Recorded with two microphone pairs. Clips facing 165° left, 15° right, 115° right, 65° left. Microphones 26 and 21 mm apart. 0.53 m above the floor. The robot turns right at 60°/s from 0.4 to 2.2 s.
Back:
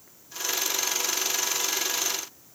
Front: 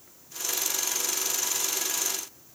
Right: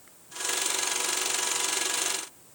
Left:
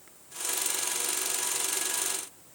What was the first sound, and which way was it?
Only background noise.